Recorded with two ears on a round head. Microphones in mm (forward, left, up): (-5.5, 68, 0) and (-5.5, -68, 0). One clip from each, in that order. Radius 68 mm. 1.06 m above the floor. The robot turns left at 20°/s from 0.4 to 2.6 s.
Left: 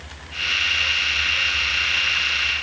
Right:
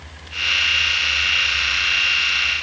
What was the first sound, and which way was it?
Only background noise.